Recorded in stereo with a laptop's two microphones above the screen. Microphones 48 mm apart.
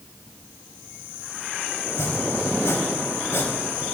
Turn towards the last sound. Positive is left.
turn(degrees=85)